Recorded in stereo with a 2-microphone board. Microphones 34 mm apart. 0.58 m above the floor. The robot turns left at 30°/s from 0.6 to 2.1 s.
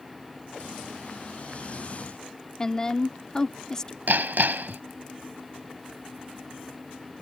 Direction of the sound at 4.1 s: 90° right.